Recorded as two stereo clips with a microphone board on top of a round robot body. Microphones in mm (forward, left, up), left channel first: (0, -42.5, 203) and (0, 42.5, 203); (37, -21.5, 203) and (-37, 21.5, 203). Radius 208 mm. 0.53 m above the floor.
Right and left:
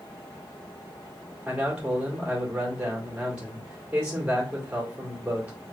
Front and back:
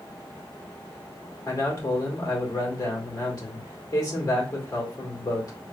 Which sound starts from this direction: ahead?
A man speaking, at 1.4 s.